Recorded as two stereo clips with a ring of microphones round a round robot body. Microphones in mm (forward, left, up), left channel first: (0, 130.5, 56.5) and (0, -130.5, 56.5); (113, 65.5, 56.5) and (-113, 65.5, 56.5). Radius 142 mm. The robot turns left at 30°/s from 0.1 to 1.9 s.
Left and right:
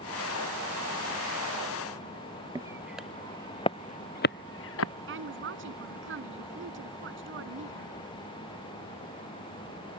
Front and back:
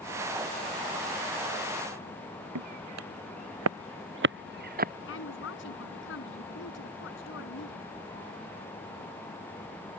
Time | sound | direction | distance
2.5 | footsteps | 165° right | ?
5.1 | a woman speaking | 45° right | ?